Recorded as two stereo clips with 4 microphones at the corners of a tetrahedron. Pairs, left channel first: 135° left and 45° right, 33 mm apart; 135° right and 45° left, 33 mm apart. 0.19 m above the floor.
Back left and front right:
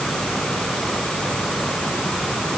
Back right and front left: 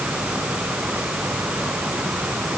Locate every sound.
Only background noise.